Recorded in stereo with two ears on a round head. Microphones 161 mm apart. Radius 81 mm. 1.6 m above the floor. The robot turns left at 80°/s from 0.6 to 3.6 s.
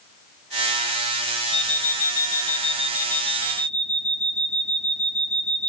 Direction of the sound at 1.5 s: 140° left.